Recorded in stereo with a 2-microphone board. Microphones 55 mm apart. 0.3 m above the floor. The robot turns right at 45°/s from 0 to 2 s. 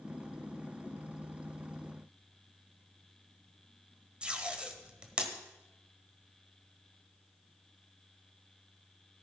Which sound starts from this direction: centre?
Tape being pulled, at 4.2 s.